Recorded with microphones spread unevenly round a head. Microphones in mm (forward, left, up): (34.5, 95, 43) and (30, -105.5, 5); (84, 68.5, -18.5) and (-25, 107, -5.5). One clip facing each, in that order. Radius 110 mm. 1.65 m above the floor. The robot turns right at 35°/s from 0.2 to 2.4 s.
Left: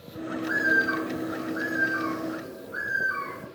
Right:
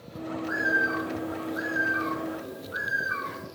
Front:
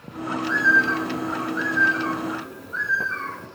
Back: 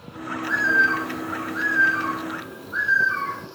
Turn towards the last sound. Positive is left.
turn(degrees=-170)